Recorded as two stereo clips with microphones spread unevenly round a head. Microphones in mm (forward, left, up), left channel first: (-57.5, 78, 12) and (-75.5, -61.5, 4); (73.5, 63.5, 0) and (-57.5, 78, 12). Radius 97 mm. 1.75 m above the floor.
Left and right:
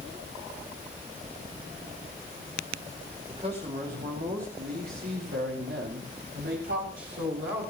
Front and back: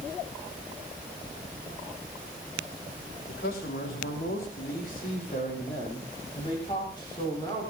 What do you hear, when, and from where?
3.3 s a man speaking: 30° right, 5.5 m; by 7.7 s 85° right, 7.5 m